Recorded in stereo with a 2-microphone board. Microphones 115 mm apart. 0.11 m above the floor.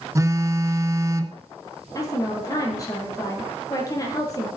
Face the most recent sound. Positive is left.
turn(degrees=30)  # may be behind; listen again after turning